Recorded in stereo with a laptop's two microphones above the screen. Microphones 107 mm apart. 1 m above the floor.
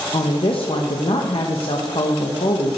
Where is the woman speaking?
55° left (ahead or behind), 0.9 m.